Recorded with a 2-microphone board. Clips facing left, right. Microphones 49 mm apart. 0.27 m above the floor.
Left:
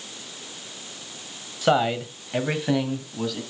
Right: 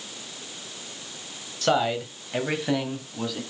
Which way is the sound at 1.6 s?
15° left (ahead or behind).